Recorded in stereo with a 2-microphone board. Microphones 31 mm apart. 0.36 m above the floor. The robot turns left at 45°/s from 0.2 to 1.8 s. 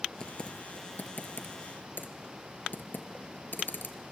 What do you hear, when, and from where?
0.2 s typing on a keyboard: 25° left (ahead or behind), 1.3 m; by 4.0 s 80° left, 1.3 m